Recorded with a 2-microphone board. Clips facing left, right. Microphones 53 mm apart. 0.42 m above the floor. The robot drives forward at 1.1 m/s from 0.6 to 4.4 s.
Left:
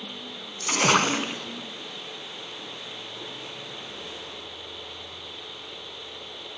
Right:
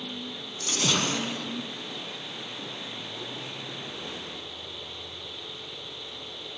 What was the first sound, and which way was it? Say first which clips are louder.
A splash: left 6 dB; 60° left (ahead or behind).